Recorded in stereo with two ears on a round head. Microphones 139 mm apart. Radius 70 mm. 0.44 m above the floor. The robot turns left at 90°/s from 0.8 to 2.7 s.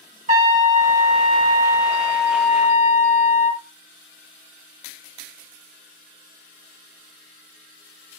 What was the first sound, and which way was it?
A trumpet, 80° right.